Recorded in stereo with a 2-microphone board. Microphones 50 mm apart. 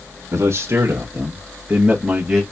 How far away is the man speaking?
About 1.4 m.